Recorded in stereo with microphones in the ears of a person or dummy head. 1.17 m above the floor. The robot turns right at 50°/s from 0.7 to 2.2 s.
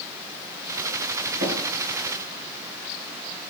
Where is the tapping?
75° right (ahead or behind), 4 m.